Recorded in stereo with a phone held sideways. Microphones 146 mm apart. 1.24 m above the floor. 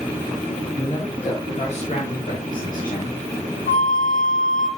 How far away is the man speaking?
About 2.5 m.